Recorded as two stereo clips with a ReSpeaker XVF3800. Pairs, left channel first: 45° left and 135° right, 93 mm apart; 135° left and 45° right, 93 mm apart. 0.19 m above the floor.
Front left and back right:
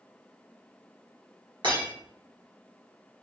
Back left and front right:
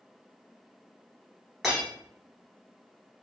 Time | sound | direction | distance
1.6 | breaking glass | 130° right | 1.7 m